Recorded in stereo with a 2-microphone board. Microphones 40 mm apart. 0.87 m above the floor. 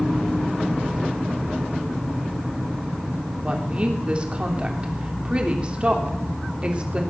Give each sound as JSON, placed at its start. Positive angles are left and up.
{"t": 3.4, "sound": "a woman speaking", "side_deg": -30, "distance_m": 2.5}